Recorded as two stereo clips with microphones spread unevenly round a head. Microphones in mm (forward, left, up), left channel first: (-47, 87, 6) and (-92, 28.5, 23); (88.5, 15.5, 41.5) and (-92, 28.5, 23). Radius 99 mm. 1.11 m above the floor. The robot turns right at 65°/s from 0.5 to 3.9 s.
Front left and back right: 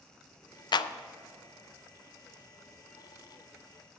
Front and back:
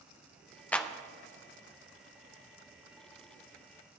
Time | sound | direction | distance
0.7 | a clap | 80° left | 0.5 m